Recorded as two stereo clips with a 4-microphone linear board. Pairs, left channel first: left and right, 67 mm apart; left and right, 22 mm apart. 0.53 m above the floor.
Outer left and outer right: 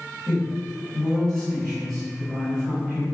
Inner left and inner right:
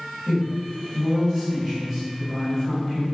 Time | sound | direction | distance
0.2 | a man speaking | 5° right (ahead or behind) | 1.7 m